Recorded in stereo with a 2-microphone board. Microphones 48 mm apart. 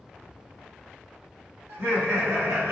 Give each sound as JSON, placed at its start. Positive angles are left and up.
{"t": 1.7, "sound": "laughter", "side_deg": -75, "distance_m": 1.5}